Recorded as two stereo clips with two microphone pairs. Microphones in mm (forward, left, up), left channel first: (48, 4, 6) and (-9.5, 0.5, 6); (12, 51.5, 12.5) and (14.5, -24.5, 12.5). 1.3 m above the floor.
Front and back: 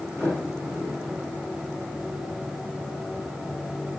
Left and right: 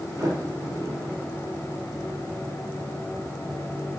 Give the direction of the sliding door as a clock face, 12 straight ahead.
4 o'clock.